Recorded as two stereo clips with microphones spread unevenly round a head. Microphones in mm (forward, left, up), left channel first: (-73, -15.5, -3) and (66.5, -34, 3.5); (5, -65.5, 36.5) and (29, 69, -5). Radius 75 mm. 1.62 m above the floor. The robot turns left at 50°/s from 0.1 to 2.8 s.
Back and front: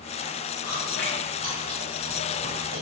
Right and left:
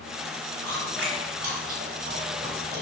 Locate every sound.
0.6 s chewing: 110° left, 3 m; by 2.8 s 5° left, 3 m